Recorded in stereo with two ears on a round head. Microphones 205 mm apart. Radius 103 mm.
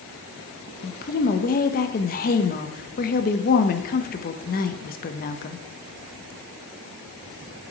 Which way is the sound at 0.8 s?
35° left (ahead or behind).